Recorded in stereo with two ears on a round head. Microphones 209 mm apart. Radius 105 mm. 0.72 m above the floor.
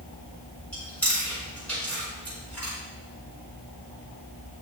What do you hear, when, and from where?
0.7 s chewing: 5° left (ahead or behind), 3 m